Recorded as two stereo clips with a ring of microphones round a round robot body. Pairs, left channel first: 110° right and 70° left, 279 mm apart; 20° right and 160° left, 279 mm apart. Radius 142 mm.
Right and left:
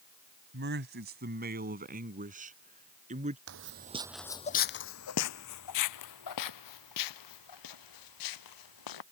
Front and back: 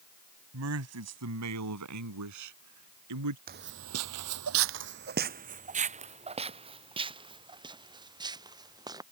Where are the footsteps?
100° left; by 9.0 s 125° right.